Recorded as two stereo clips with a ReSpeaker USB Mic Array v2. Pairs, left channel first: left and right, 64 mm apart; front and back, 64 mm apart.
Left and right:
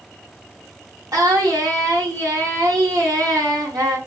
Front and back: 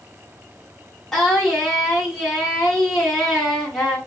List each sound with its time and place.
1.1 s singing: 90° right, 1.5 m